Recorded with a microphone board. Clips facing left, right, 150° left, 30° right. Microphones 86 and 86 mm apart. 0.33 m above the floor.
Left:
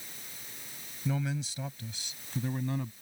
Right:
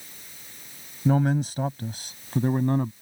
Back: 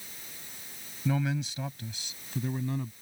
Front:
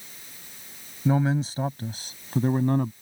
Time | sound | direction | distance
1.1 | a man speaking | 80° right | ?